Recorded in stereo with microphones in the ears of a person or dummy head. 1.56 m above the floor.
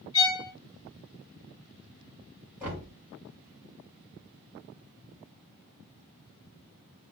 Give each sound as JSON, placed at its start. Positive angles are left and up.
{"t": 0.1, "sound": "a violin", "side_deg": 20, "distance_m": 1.6}
{"t": 2.6, "sound": "knocking", "side_deg": -15, "distance_m": 3.5}